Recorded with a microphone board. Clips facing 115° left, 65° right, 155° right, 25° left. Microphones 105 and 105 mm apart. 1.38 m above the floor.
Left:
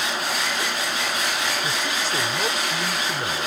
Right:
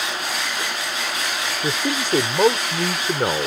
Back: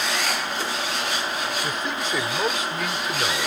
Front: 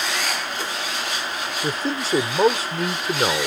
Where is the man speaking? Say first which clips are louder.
Right 3 dB, front 2 dB; 35° right.